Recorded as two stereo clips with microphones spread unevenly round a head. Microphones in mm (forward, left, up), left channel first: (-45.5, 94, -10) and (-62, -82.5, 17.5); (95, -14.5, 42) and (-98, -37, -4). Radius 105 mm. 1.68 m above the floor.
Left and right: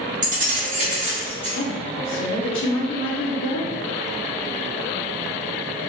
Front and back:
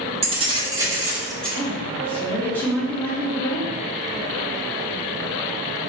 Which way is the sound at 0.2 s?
110° right.